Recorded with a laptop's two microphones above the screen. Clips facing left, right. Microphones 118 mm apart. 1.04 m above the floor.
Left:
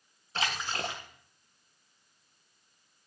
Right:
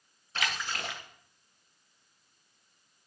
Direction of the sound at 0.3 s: 30° left (ahead or behind).